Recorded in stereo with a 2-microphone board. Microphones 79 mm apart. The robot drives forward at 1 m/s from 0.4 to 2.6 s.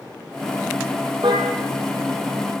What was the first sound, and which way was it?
A car horn, 70° right (ahead or behind).